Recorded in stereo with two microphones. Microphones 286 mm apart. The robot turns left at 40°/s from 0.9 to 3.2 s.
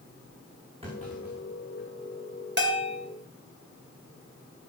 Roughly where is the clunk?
Centre.